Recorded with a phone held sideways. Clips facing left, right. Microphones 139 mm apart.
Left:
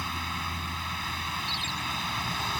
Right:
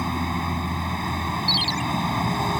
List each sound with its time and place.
0.0 s a vehicle: 45° right (ahead or behind)
1.5 s a ringtone: 65° right (ahead or behind)